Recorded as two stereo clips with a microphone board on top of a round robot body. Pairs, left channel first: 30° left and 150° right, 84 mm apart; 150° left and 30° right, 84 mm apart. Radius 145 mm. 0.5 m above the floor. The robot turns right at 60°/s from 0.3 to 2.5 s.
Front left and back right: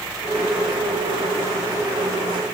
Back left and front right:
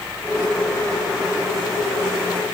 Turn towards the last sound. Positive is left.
No sound to turn to.